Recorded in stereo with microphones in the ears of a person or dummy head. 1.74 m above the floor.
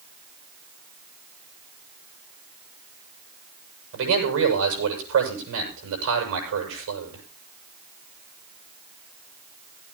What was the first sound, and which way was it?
A man speaking, 80° right.